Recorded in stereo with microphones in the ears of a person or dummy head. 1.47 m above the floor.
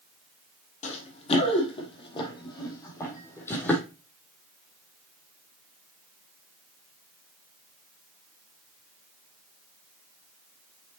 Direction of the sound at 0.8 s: 40° left (ahead or behind).